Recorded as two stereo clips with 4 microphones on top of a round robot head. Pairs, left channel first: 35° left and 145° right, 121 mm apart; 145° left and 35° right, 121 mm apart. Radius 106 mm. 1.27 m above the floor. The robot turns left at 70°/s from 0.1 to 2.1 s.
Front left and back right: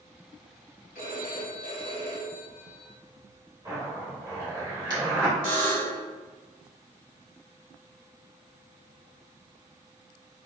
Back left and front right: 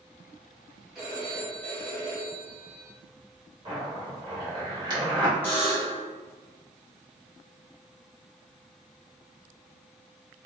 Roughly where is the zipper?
Right.